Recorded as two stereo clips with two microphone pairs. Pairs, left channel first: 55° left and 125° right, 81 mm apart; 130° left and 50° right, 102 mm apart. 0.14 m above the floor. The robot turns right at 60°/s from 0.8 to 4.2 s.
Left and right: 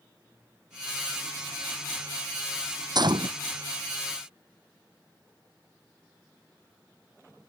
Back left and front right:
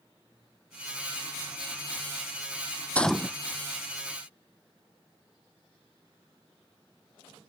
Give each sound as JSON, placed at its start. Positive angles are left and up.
{"t": 3.0, "sound": "a gunshot", "azimuth_deg": -155}